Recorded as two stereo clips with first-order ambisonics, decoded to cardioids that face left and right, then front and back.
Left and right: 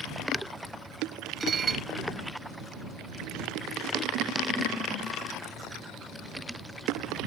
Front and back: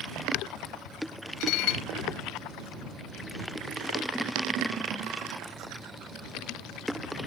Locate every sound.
1.4 s dishes clattering: 20° right